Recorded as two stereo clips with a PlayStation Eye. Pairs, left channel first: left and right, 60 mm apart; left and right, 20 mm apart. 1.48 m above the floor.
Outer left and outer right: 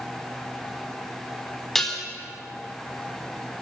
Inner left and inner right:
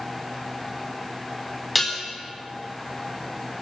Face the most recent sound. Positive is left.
turn(degrees=5)  # may be behind; listen again after turning